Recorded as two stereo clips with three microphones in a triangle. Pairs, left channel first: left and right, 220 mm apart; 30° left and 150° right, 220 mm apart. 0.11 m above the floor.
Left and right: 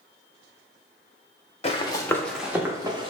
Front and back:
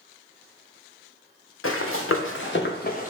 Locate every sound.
1.6 s running footsteps: 30° left, 0.7 m; by 3.1 s 25° right, 0.9 m